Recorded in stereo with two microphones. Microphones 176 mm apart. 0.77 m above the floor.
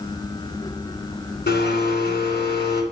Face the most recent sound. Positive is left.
turn(degrees=80)